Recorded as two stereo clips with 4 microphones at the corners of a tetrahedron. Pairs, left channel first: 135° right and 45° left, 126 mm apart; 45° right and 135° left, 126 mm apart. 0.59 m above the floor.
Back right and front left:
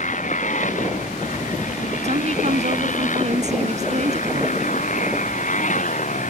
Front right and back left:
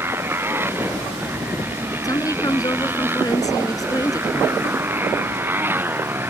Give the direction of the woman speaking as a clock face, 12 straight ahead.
11 o'clock.